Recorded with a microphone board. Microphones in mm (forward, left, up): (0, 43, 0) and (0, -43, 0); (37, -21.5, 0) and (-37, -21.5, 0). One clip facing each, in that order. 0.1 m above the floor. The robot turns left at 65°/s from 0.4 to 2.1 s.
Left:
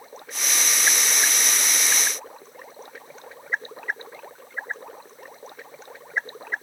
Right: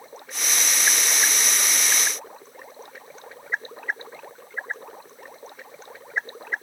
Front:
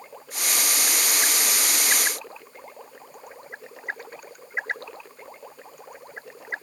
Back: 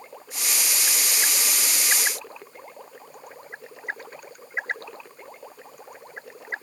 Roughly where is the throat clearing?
No throat clearing in this recording.